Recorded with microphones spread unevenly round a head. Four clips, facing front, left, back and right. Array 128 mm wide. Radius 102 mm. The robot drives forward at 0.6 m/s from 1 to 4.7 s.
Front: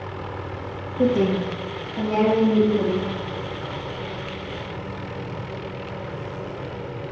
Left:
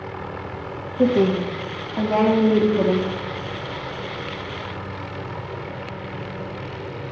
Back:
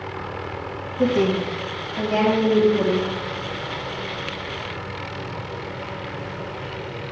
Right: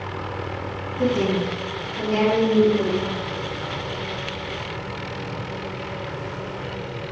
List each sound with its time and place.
1.0 s a woman speaking: 45° left, 2 m; by 3.1 s 80° left, 1.6 m